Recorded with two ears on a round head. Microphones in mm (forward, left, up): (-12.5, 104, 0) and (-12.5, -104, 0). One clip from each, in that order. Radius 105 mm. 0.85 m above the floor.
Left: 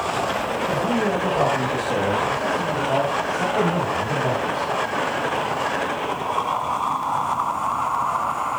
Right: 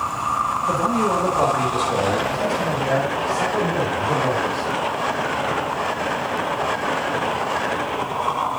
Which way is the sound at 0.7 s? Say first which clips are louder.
Right 2 dB; 15° right (ahead or behind).